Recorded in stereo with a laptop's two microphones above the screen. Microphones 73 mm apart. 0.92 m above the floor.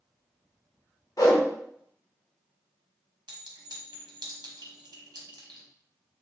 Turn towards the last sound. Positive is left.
turn(degrees=-75)  # may be behind; listen again after turning